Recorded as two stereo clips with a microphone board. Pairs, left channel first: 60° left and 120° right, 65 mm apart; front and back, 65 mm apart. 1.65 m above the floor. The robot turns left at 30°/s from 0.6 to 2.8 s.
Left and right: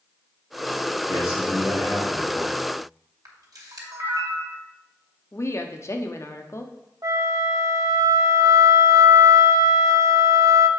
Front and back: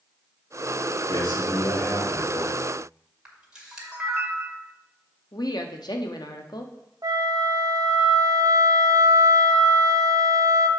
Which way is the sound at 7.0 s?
155° right.